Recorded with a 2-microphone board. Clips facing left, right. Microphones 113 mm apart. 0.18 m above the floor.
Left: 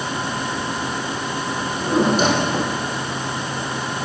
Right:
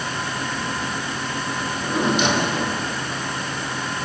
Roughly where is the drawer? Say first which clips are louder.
Left 5 dB; left.